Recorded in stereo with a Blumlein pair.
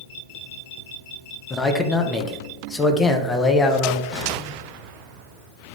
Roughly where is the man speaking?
Ahead.